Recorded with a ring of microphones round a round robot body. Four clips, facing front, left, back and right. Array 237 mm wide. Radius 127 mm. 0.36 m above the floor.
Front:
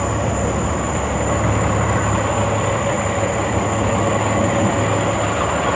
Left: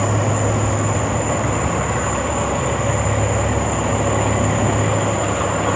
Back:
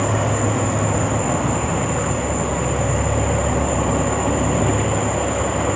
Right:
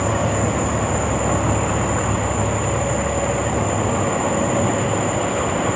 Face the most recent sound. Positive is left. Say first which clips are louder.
# even, even
turn(degrees=150)